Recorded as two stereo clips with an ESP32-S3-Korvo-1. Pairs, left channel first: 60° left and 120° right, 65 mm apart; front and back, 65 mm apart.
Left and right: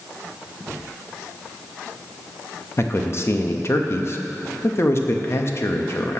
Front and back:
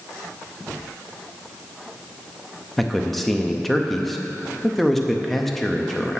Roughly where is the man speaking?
Left.